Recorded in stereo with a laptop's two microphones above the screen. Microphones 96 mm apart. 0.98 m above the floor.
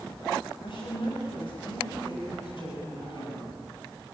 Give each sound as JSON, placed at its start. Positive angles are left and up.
{"t": 0.6, "sound": "a woman speaking", "side_deg": 60, "distance_m": 5.0}